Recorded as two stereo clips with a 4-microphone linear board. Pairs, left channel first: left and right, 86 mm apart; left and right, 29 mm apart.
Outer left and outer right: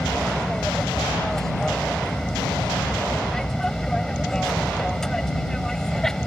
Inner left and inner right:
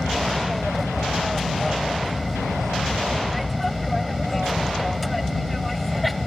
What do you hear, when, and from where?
0.0 s an aircraft: 5° left (ahead or behind)